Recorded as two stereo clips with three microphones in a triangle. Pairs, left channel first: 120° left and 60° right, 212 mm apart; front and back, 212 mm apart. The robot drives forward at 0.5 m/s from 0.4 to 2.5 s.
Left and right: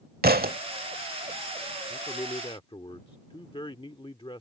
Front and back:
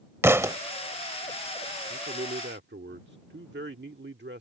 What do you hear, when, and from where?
0.2 s a thud: 100° right; by 0.6 s 105° right
1.9 s a man speaking: straight behind